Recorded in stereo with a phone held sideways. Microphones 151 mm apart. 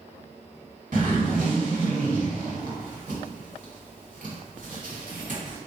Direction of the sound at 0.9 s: 60° right (ahead or behind).